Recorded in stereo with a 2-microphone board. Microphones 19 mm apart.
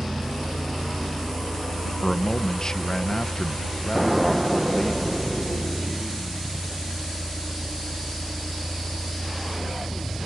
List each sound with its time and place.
0.0 s a vehicle: 80° right
2.0 s a man speaking: 30° left (ahead or behind)
4.0 s an explosion: 20° right (ahead or behind)